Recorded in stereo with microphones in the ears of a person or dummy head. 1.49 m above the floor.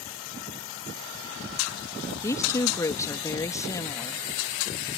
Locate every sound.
2.2 s a woman speaking: 15° left (ahead or behind)